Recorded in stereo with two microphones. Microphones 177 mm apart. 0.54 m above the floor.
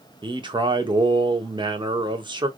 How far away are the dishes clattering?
No dishes clattering in this recording.